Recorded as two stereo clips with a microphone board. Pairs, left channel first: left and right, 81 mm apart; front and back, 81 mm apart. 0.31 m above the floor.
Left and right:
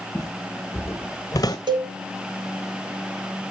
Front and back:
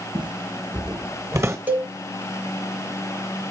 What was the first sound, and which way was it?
Footsteps, straight behind.